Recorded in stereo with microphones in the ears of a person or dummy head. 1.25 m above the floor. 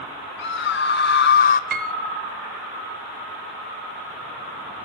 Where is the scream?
60° left (ahead or behind), 1.3 m; by 1.6 s 40° left (ahead or behind), 0.5 m.